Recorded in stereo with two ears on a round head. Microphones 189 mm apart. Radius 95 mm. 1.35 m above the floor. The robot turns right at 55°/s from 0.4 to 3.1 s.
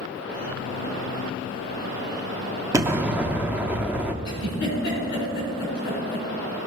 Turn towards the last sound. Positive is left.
turn(degrees=55)  # may be behind; listen again after turning